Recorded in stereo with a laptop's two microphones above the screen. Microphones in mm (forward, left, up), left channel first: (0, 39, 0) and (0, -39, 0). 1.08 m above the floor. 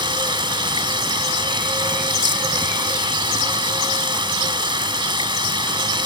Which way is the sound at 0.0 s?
85° right.